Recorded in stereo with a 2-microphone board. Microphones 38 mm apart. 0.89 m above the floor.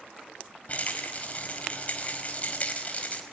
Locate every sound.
0.7 s a rattle: 35° left (ahead or behind), 4.5 m